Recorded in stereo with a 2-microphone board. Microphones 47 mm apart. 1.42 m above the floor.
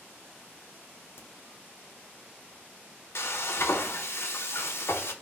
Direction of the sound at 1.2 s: 55° left (ahead or behind).